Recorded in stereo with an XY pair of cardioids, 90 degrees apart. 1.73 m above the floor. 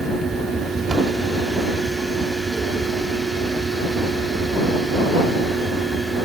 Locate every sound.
0.0 s a fan: 50° right